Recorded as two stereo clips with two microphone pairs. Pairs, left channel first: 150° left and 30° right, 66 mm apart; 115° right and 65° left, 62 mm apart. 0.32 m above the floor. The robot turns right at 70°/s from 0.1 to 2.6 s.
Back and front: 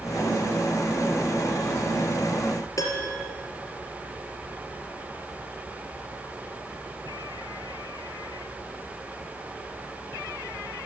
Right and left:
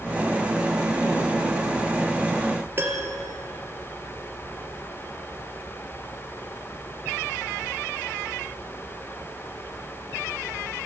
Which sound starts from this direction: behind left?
A piano, at 2.8 s.